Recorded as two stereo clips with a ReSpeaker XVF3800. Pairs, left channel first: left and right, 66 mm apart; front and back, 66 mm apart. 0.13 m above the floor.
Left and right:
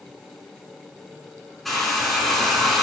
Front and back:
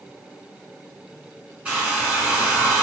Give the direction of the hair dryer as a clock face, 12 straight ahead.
6 o'clock.